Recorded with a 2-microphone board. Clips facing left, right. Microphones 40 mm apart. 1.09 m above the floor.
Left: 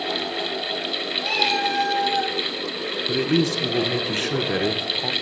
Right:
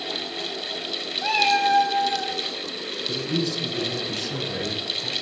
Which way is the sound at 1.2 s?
50° right (ahead or behind).